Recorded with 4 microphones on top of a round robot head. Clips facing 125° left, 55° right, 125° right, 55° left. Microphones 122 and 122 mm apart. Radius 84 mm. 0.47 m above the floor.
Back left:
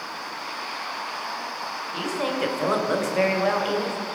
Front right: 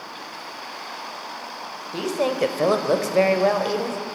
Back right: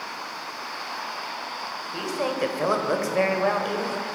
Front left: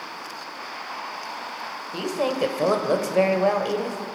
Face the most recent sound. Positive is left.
turn(degrees=-10)